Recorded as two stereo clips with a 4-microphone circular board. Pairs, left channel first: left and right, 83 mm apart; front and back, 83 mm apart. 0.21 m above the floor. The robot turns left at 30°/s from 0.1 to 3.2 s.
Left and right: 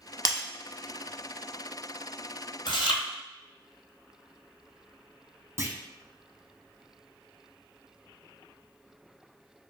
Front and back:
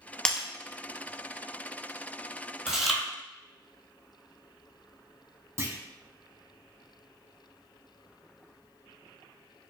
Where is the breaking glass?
75° right, 0.6 m; by 0.5 s 85° right, 0.6 m.